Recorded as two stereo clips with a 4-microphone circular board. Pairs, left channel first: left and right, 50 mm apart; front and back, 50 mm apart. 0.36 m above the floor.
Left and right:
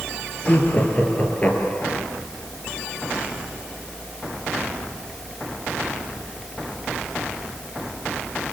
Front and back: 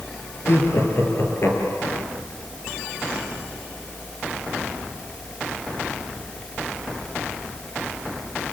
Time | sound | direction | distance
0.5 | laughter | 35° left | 6.5 m